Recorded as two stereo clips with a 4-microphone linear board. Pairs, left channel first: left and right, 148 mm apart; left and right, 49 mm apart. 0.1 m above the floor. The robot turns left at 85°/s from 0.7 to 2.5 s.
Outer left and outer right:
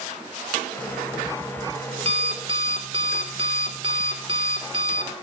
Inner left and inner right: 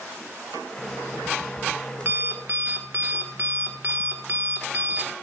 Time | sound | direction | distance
0.8 | an alarm clock | 30° left | 1.2 m